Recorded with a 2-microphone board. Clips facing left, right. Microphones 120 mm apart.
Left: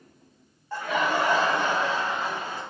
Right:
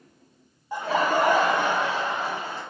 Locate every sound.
0.7 s laughter: 15° right (ahead or behind), 0.5 m; by 2.6 s 75° right (ahead or behind), 2 m